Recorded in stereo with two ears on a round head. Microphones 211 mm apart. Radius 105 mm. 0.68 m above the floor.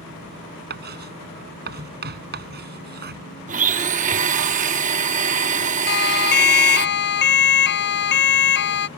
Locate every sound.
0.7 s writing: 45° right (ahead or behind)
3.5 s a blender: 35° right (ahead or behind)
5.9 s a siren: 45° left (ahead or behind); by 8.9 s 50° left (ahead or behind)